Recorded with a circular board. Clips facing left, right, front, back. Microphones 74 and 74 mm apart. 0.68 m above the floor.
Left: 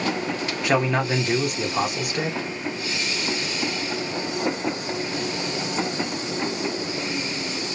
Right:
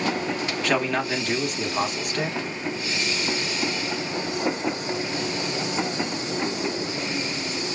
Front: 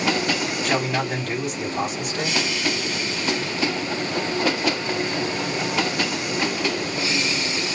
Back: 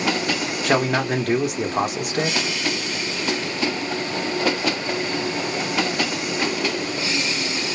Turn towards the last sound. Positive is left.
turn(degrees=165)